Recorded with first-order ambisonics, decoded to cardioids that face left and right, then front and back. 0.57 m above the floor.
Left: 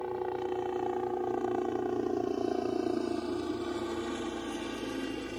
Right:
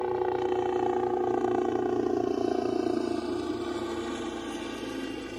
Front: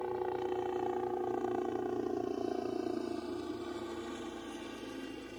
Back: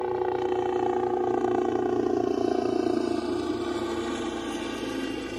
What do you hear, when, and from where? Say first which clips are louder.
0.0 s a helicopter: right 6 dB, back 9 dB; 140° right; by 5.4 s 175° right